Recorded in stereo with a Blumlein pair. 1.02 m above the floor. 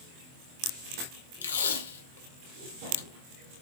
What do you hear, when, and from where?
1.4 s tape being pulled: 70° left, 0.9 m